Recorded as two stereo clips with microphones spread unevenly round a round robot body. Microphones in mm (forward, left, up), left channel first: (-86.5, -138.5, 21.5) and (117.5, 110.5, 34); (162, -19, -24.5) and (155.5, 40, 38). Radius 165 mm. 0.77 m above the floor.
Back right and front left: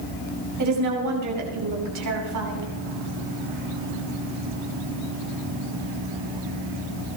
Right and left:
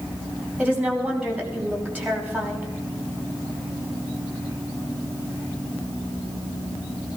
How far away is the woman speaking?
About 5.5 m.